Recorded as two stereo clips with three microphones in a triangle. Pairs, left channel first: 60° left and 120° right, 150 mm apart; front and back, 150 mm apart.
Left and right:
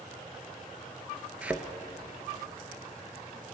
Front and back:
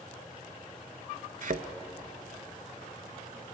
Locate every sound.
1.4 s a thud: 160° left, 0.5 m